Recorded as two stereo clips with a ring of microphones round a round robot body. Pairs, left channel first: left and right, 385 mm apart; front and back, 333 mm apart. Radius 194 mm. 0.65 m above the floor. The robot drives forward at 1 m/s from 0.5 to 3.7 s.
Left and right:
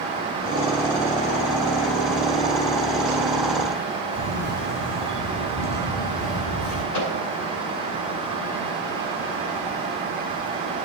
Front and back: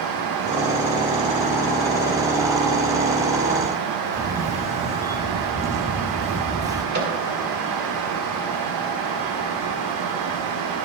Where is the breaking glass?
No breaking glass in this recording.